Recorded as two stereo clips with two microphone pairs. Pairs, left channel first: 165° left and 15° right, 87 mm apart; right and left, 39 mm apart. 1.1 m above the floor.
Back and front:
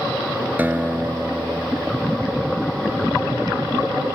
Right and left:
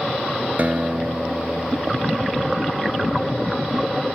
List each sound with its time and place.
0.6 s a guitar: 50° left